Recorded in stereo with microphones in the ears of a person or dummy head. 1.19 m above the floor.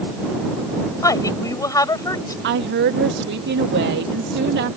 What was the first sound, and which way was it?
A woman speaking, 20° left (ahead or behind).